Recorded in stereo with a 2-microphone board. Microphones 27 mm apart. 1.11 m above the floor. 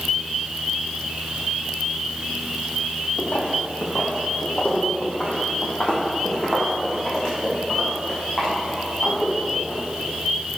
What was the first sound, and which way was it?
Footsteps, 65° left (ahead or behind).